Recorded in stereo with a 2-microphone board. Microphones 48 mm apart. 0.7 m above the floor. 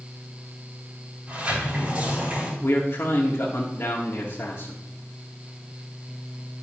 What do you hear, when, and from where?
1.3 s a sliding door: 30° right (ahead or behind), 3 m
2.6 s a man speaking: 50° left (ahead or behind), 1.4 m